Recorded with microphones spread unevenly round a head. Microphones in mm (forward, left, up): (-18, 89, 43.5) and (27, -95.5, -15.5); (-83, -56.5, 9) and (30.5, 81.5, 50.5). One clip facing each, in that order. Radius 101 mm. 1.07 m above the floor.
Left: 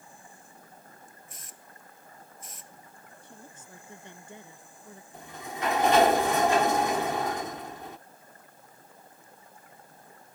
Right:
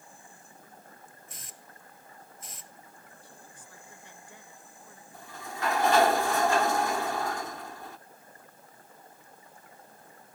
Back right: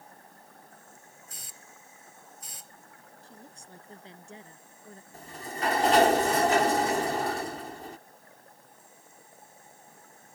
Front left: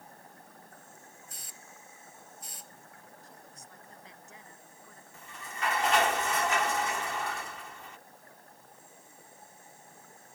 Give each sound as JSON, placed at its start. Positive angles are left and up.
{"t": 1.3, "sound": "a hiss", "azimuth_deg": -100}
{"t": 3.2, "sound": "a woman speaking", "azimuth_deg": 170}
{"t": 5.1, "sound": "a sliding door", "azimuth_deg": 180}